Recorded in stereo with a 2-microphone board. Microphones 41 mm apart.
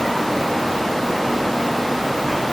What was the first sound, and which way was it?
Only background noise.